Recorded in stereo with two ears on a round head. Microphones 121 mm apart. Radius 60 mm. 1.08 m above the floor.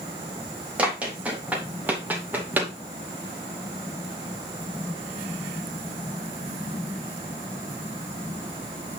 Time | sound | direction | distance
0.8 | running footsteps | 10° right (ahead or behind) | 4 m